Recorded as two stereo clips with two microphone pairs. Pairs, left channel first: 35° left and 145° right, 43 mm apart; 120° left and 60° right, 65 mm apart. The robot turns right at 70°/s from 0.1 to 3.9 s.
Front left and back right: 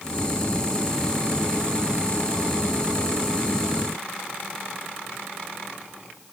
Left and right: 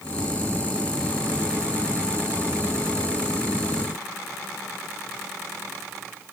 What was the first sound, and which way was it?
Only background noise.